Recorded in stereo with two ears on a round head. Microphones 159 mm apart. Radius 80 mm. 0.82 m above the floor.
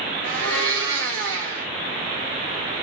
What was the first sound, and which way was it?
A blender, 70° right (ahead or behind).